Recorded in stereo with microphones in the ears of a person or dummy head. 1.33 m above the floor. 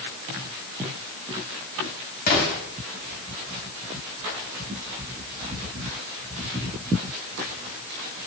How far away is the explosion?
About 4 m.